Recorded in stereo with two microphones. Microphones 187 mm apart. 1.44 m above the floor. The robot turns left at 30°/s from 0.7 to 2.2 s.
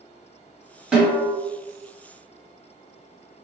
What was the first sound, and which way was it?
A snare drum, 5° right (ahead or behind).